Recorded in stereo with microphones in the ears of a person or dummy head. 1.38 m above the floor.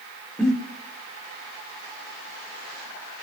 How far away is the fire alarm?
No fire alarm in this recording.